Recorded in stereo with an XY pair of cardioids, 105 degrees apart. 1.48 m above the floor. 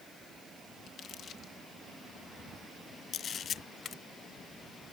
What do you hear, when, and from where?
0.9 s crumpling: 55° left
3.1 s a camera shutter: 50° left